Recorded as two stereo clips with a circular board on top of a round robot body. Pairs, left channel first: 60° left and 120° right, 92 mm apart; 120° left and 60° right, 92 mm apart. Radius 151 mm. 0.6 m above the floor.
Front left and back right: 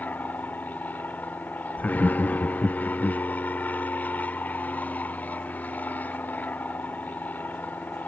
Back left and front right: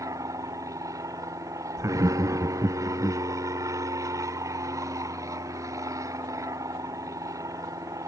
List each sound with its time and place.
0.0 s an aircraft: 10° right
1.8 s laughter: 10° right